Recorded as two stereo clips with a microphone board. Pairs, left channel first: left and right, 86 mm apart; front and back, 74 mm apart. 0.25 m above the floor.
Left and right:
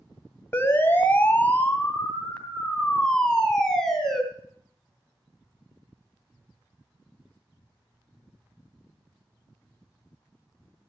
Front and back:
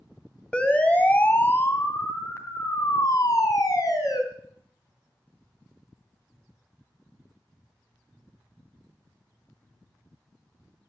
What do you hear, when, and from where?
0.5 s a siren: 65° left, 2 m; by 4.2 s 5° left, 3.5 m